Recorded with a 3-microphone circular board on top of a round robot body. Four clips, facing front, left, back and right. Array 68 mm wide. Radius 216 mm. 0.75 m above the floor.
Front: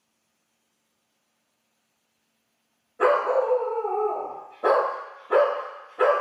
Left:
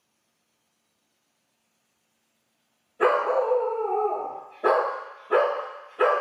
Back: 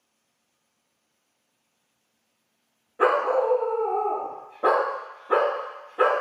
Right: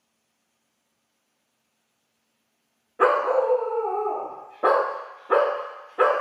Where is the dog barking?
110° right, 0.7 m.